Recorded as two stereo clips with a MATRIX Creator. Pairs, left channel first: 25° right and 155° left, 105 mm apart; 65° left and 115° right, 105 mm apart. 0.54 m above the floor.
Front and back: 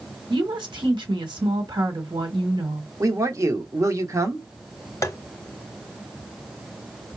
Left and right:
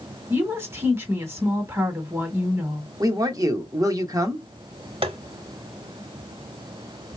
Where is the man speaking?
155° right, 0.9 m.